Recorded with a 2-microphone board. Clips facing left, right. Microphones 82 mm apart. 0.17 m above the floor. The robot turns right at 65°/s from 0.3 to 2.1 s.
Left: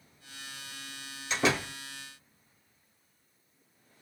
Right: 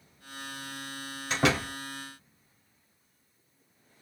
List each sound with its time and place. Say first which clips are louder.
1.3 s a door slam: right 2 dB; 45° right (ahead or behind), 1.8 m; by 1.7 s 60° right (ahead or behind), 1.8 m